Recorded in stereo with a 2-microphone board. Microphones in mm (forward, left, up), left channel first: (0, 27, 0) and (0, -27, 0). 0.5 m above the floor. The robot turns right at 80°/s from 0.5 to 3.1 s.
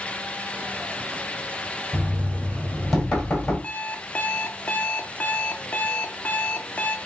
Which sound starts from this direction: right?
Knocking, at 1.9 s.